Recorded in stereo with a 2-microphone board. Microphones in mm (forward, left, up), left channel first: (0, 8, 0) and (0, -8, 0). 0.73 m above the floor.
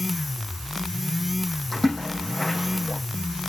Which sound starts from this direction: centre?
A splash, at 1.7 s.